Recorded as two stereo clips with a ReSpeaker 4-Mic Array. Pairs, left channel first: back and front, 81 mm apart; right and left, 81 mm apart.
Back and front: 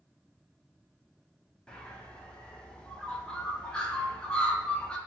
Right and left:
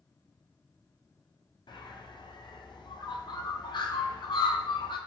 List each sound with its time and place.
1.7 s a bird: 100° right, 0.6 m